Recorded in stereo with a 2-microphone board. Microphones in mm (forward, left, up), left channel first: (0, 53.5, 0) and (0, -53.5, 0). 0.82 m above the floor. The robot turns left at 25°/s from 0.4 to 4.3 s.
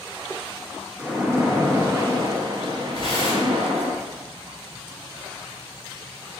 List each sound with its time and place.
1.0 s a splash: 15° right, 0.6 m; by 3.9 s 85° right, 0.6 m
2.9 s tearing paper: 60° right (ahead or behind), 1.9 m; by 3.6 s 45° right (ahead or behind), 1.9 m